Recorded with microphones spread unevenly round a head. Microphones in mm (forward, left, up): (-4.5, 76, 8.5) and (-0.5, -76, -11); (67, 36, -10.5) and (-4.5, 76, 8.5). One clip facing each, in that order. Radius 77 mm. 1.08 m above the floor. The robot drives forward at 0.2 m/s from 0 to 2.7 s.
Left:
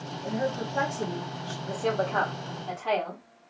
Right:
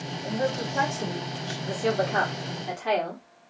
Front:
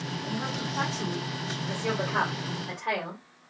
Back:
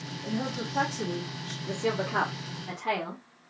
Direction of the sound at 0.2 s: 165° left.